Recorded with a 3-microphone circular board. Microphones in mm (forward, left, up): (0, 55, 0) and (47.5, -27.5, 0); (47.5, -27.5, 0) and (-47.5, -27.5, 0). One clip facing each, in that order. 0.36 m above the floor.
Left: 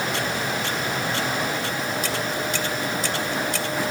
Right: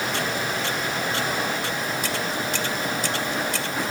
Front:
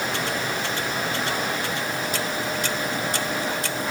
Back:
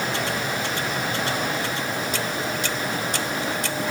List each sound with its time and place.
Only background noise.